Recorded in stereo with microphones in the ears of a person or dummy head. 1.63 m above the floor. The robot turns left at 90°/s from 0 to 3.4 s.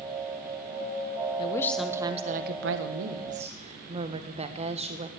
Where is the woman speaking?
35° left, 1.2 m; by 5.1 s 145° right, 1.2 m.